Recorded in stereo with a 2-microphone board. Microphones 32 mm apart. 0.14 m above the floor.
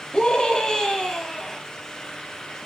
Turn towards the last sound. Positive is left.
turn(degrees=5)  # may be behind; listen again after turning